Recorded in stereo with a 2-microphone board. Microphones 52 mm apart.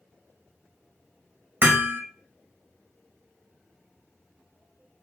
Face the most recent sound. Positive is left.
turn(degrees=-40)  # may be behind; listen again after turning